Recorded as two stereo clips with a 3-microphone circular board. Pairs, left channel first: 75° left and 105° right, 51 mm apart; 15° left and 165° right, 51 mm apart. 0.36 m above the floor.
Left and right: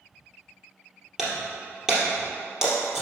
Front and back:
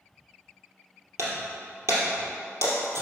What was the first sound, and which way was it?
Breaking glass, 170° left.